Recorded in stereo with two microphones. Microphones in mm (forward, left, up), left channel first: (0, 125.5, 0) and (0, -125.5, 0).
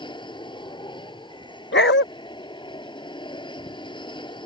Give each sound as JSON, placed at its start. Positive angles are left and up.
{"t": 0.0, "sound": "an aircraft", "side_deg": 20}
{"t": 1.7, "sound": "a dog barking", "side_deg": 50}